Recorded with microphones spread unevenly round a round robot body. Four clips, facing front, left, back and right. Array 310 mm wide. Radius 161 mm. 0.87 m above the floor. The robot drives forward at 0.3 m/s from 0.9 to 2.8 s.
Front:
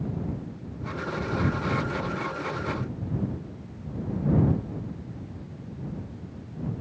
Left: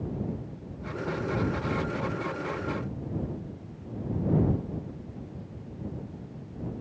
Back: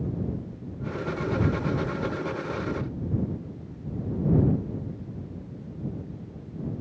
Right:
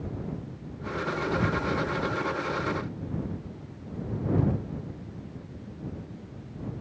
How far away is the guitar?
No guitar in this recording.